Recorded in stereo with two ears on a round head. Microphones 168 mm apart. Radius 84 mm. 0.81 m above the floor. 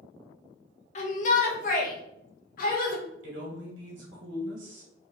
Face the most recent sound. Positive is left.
turn(degrees=-75)  # may be behind; listen again after turning